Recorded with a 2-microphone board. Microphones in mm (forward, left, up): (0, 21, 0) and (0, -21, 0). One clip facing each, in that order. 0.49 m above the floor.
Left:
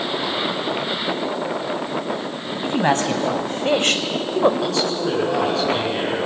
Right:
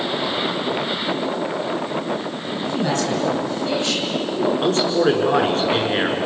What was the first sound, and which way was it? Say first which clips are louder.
A man speaking: left 3 dB; 45° left (ahead or behind).